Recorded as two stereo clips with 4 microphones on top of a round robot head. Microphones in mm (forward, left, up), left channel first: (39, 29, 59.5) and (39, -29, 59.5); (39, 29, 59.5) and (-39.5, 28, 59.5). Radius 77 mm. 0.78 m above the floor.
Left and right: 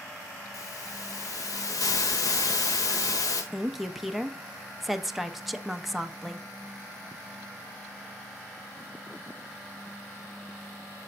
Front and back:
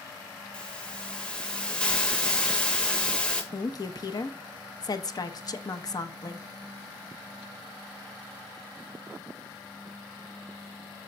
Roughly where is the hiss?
Left.